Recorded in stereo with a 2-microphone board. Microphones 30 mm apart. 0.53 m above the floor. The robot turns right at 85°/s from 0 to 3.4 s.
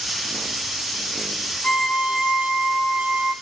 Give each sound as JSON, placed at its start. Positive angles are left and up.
{"t": 1.6, "sound": "a violin", "azimuth_deg": 130, "distance_m": 2.5}